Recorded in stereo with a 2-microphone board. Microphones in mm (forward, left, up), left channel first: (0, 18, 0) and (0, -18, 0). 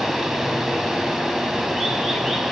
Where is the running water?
15° right (ahead or behind), 0.8 m.